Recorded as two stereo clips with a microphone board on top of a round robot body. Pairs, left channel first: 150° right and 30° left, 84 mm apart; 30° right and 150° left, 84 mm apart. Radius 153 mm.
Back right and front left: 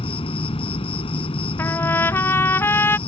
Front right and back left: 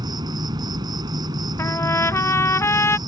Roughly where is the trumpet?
Right.